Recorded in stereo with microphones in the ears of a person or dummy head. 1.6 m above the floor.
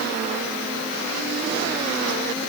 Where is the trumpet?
I don't hear a trumpet.